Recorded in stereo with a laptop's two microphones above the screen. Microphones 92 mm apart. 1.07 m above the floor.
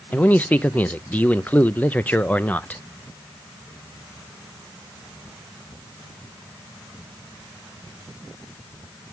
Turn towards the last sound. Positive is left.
turn(degrees=15)  # may be behind; listen again after turning